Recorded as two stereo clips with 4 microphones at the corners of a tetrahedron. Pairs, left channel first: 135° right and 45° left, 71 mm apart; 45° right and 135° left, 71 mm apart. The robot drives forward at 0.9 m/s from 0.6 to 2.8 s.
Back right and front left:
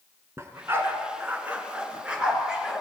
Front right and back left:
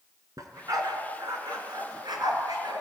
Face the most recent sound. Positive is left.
turn(degrees=130)